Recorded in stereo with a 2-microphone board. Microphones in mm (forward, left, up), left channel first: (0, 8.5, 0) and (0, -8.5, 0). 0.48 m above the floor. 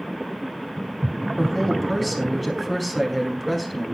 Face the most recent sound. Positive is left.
turn(degrees=0)  # may be behind; listen again after turning